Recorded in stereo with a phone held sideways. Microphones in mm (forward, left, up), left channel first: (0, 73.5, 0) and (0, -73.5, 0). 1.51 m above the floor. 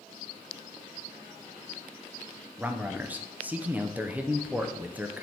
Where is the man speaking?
10° right (ahead or behind), 0.5 m.